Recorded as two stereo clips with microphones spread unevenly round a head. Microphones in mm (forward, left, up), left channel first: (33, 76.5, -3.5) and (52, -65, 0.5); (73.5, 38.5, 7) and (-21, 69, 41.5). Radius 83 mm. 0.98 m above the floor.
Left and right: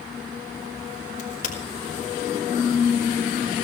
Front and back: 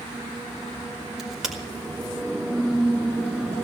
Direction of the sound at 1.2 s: 75° left.